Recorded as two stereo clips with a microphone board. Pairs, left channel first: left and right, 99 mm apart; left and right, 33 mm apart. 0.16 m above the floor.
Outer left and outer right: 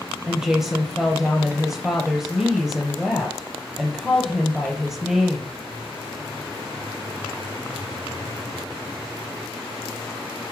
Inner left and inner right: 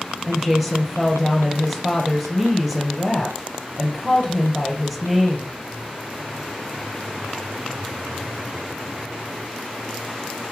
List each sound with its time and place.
0.3 s a woman speaking: 5° right (ahead or behind), 3 m